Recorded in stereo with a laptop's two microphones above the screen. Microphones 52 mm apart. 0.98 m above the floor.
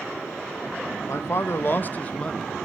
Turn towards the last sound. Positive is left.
turn(degrees=5)  # may be behind; listen again after turning